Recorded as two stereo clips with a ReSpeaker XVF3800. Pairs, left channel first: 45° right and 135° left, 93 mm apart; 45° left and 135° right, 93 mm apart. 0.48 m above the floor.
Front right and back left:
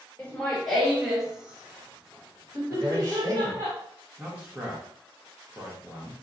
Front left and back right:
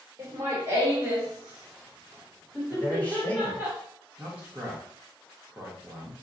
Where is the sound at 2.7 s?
110° left, 1.6 m.